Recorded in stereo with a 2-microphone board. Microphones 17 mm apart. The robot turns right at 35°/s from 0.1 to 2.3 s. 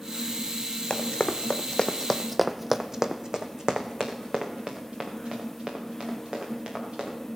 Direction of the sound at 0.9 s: 65° left (ahead or behind).